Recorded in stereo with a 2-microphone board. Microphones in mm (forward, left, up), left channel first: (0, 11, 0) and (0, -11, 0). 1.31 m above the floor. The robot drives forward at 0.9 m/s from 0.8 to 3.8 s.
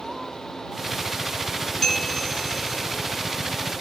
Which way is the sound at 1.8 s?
15° left (ahead or behind).